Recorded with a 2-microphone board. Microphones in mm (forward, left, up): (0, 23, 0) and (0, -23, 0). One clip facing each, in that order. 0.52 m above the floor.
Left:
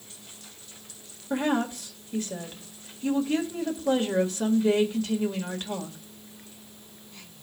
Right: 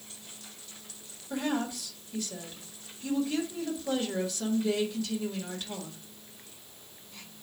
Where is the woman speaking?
45° left (ahead or behind), 1.6 m.